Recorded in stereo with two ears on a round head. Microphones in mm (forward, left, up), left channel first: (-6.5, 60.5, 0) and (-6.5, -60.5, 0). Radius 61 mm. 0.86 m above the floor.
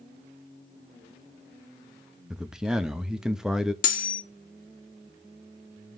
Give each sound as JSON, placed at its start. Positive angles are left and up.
{"t": 2.3, "sound": "a man speaking", "side_deg": -5, "distance_m": 0.9}
{"t": 3.8, "sound": "cutlery clinking", "side_deg": 70, "distance_m": 1.0}